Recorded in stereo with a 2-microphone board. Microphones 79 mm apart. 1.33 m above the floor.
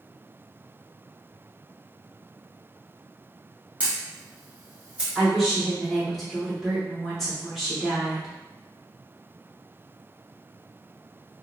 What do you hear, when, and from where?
3.8 s a camera shutter: 15° right (ahead or behind), 1.2 m
5.2 s a woman speaking: 5° right (ahead or behind), 1.3 m